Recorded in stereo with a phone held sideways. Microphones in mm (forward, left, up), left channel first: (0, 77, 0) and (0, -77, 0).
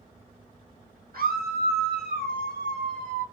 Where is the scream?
85° right, 1.5 m; by 3.2 s 65° right (ahead or behind), 2.5 m.